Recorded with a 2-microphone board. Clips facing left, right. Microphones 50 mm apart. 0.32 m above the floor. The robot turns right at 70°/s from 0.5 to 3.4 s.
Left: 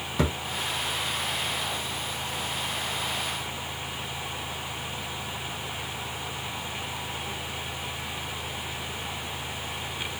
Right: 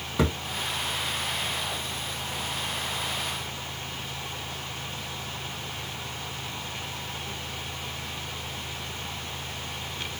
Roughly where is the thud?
Centre.